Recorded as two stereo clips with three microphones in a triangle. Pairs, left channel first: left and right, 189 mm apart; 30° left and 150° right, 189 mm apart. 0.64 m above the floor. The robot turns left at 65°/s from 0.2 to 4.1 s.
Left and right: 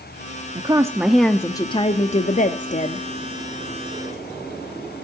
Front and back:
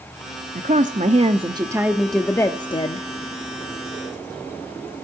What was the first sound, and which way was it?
A woman speaking, 140° right.